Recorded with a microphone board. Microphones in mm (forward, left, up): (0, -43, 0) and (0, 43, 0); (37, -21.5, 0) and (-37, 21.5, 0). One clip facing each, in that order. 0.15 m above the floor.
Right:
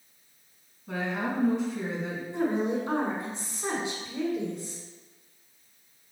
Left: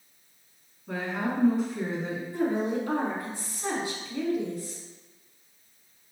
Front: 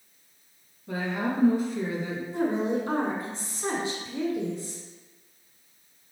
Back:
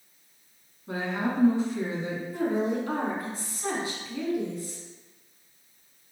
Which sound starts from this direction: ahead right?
A woman speaking, at 2.3 s.